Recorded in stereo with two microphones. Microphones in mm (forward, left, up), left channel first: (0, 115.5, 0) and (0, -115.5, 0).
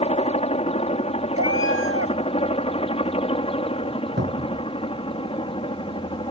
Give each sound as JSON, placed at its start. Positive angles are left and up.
{"t": 0.0, "sound": "a helicopter", "side_deg": 25}
{"t": 1.4, "sound": "a cat meowing", "side_deg": -75}
{"t": 4.2, "sound": "a cupboard door", "side_deg": -50}